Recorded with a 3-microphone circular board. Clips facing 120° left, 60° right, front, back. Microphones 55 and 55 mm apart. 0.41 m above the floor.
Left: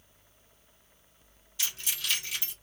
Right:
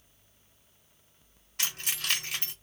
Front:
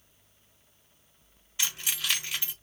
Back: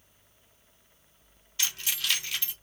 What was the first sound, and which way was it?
Keys jangling, 70° right.